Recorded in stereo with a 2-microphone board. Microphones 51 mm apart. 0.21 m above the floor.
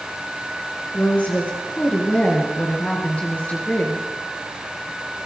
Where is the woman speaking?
30° left (ahead or behind), 3.5 m.